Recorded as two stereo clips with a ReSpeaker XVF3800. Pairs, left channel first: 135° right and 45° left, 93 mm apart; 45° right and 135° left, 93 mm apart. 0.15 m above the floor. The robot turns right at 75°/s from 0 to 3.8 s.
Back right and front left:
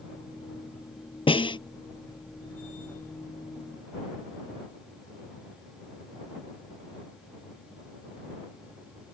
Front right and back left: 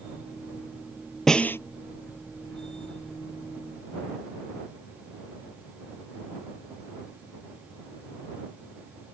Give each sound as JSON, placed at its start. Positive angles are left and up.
{"t": 1.3, "sound": "a snare drum", "azimuth_deg": -130}